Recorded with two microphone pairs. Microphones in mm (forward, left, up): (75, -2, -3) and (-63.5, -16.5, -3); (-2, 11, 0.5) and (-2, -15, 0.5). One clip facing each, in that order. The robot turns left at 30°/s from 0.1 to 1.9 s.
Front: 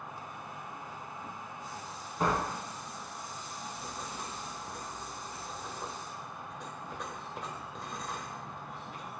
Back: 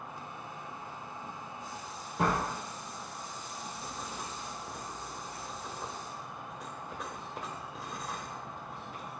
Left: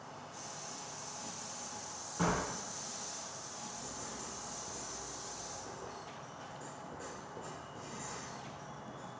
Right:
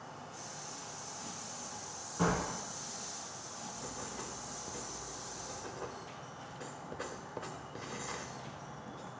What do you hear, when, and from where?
0.0 s an insect: 100° right, 2 m; by 9.2 s 155° right, 2 m
2.2 s a door slam: 175° left, 3 m
3.8 s writing: 85° right, 0.6 m